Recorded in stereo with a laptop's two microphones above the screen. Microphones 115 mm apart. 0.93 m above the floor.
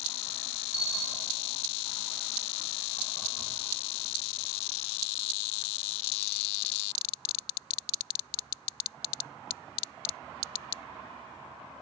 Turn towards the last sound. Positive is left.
turn(degrees=-10)  # may be behind; listen again after turning